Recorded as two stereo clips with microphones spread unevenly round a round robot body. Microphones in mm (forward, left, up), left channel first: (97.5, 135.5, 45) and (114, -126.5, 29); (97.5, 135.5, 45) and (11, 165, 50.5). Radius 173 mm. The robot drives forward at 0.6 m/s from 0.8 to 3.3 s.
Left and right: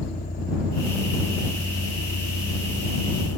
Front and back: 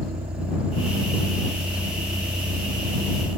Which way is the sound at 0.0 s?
170° left.